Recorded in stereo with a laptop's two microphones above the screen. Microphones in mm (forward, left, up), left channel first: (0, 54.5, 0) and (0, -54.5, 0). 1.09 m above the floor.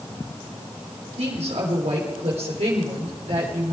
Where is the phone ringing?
No phone ringing in this recording.